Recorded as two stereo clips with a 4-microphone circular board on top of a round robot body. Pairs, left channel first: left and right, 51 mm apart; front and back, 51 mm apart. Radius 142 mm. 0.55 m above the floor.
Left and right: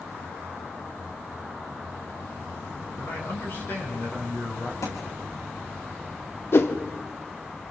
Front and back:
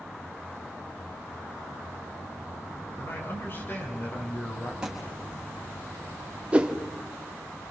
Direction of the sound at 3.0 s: 45° left.